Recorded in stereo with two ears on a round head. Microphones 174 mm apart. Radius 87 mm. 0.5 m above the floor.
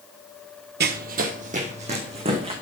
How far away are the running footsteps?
About 0.8 m.